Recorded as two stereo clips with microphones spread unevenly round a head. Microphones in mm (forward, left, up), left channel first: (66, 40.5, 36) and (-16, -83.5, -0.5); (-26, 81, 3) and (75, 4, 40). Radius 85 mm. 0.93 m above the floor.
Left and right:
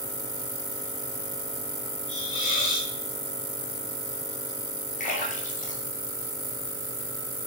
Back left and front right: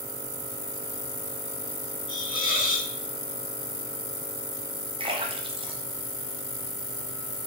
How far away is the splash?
About 1.6 m.